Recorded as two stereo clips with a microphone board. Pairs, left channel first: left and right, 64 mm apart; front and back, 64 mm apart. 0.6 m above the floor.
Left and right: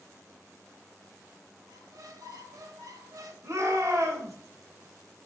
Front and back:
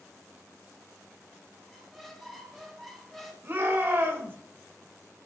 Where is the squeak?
90° right, 1.2 m.